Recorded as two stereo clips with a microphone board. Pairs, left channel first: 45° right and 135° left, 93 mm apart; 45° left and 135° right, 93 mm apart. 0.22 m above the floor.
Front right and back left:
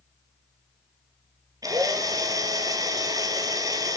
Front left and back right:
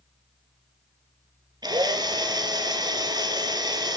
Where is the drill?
175° right, 2.5 m.